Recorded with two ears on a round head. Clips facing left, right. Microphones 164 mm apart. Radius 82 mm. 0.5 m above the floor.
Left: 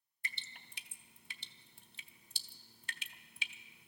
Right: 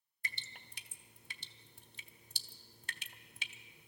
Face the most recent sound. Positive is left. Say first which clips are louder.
# right 1 dB
turn(degrees=-35)  # may be behind; listen again after turning